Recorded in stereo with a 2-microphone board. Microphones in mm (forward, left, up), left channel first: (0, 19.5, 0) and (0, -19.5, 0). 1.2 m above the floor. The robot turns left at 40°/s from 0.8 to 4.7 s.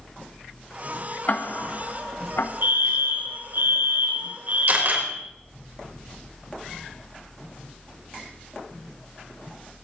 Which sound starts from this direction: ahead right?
A fire alarm, at 2.6 s.